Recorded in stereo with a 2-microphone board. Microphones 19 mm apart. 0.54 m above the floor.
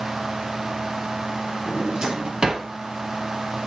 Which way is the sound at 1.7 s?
40° right (ahead or behind).